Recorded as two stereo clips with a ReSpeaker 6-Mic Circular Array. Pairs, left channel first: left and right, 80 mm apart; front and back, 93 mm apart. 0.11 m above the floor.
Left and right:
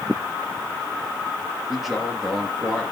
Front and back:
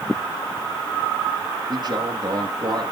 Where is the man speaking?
175° right, 2.5 m.